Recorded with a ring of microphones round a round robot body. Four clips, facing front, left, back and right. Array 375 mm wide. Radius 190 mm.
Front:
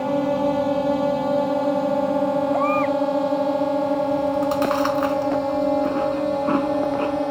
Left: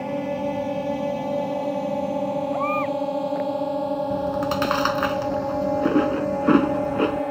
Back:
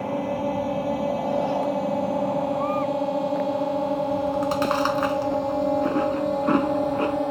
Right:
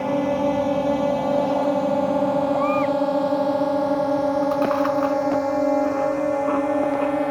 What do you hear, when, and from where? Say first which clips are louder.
0.0 s a drone: right 5 dB, front 5 dB; 40° right; by 7.3 s 70° right
2.5 s a baby crying: right 4 dB, front 4 dB; 10° left
4.1 s chewing: right 4 dB, front 3 dB; 95° left